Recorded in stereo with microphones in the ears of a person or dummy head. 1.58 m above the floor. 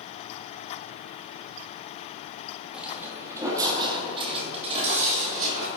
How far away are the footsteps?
About 2.5 m.